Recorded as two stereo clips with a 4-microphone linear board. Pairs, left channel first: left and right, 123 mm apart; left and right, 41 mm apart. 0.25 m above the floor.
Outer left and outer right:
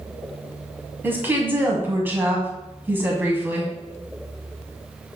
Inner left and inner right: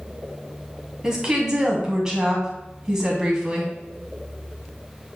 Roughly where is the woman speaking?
Centre.